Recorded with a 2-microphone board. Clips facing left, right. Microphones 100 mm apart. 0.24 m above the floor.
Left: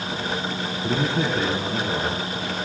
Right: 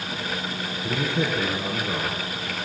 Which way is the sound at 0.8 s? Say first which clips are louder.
Left 2 dB; 75° left (ahead or behind).